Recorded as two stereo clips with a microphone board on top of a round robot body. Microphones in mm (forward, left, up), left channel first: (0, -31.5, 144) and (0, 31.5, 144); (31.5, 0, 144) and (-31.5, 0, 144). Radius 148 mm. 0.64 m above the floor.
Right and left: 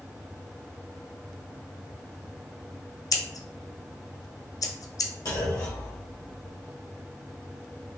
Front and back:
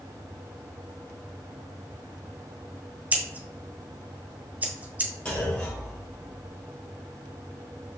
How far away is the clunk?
About 1.7 m.